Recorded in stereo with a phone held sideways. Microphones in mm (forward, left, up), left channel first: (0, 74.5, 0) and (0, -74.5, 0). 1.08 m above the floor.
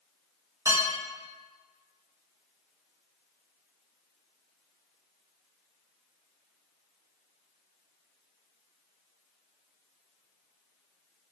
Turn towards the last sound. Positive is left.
turn(degrees=-20)  # may be behind; listen again after turning